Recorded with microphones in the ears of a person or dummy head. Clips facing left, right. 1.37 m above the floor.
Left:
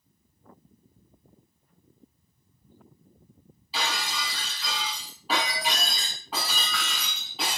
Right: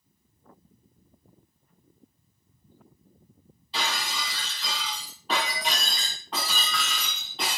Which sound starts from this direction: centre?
Breaking glass, at 3.7 s.